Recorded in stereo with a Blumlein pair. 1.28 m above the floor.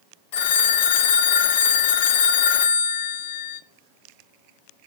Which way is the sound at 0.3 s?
50° left.